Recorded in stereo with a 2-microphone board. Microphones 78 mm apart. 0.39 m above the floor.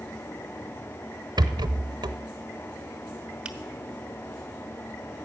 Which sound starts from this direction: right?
A rattle, at 1.4 s.